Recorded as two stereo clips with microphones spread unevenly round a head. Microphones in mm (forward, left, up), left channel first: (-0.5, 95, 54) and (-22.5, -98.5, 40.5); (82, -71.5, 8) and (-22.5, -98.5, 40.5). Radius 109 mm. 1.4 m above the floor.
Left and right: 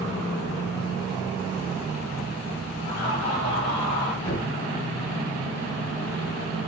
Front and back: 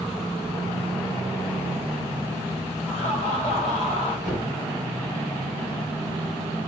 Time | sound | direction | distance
2.9 | laughter | 20° left | 3 m
4.2 | a thud | 35° left | 4 m